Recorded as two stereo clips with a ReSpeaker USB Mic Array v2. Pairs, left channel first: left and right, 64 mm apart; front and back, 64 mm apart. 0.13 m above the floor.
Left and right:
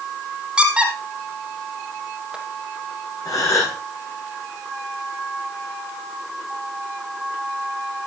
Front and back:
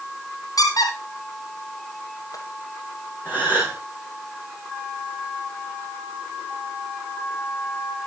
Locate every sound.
0.6 s a squeak: 15° right, 2.5 m
3.2 s a gasp: 70° left, 9 m